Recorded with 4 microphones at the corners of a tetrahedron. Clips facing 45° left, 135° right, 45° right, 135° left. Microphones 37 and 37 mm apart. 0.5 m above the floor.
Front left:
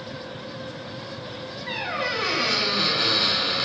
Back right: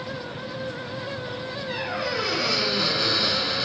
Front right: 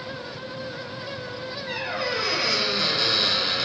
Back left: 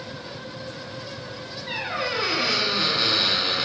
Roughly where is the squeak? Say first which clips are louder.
Front left 2 dB, back left 1 dB; left.